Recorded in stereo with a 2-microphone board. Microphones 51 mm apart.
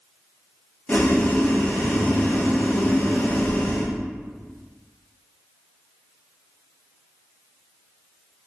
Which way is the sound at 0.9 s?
35° left (ahead or behind).